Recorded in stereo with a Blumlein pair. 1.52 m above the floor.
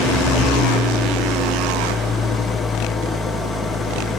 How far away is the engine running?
About 1.0 m.